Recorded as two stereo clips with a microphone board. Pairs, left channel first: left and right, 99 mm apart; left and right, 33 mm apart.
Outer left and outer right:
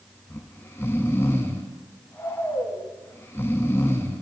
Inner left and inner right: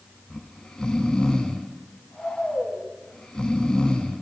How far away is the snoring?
About 0.7 m.